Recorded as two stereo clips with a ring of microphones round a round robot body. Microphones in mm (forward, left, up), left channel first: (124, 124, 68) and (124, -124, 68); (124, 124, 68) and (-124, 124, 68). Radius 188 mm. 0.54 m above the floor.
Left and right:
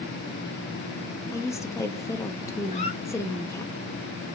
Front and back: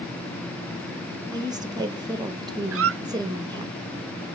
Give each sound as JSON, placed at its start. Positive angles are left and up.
{"t": 1.3, "sound": "a woman speaking", "azimuth_deg": 140, "distance_m": 1.2}
{"t": 2.7, "sound": "a squeak", "azimuth_deg": 155, "distance_m": 0.8}